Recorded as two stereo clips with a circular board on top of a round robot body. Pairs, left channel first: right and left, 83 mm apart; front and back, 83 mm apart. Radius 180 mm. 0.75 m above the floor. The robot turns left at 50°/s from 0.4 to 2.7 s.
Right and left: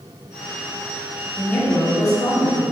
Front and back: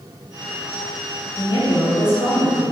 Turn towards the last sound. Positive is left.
turn(degrees=-90)